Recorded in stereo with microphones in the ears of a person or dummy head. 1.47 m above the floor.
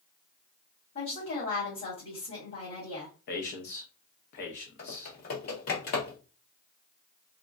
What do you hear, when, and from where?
0.9 s a woman speaking: 50° left (ahead or behind), 1.4 m
3.3 s a man speaking: 60° left (ahead or behind), 0.8 m
4.8 s typing on a keyboard: 45° left (ahead or behind), 0.8 m